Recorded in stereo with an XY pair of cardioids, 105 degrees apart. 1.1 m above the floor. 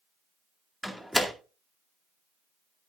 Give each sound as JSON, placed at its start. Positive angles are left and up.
{"t": 0.8, "sound": "a door slam", "azimuth_deg": 0, "distance_m": 2.0}